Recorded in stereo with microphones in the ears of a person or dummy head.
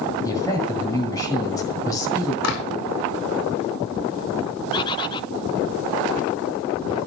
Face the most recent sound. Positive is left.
turn(degrees=30)  # may be behind; listen again after turning